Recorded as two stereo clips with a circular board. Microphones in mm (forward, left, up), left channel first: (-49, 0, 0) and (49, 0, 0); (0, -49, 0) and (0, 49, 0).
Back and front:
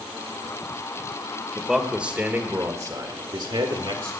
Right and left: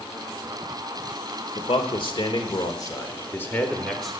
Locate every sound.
1.6 s a man speaking: 90° right, 1.7 m; by 4.1 s straight ahead, 1.6 m